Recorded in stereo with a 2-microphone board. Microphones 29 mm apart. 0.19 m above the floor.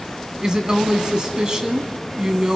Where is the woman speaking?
25° right (ahead or behind), 1.5 m.